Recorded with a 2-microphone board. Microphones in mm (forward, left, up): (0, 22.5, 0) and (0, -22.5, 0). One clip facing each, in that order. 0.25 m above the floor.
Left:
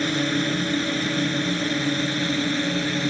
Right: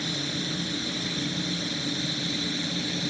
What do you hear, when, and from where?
0.0 s a drone: 50° left (ahead or behind); by 3.1 s 45° left (ahead or behind)